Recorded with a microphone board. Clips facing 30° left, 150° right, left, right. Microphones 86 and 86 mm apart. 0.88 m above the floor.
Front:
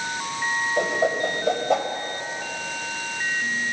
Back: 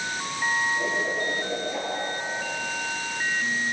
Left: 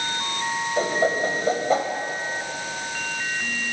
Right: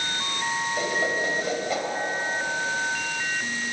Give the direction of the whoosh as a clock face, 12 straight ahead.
11 o'clock.